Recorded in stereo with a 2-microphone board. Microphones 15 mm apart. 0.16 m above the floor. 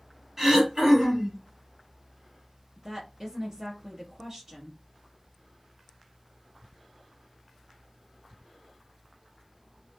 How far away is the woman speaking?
About 1.3 m.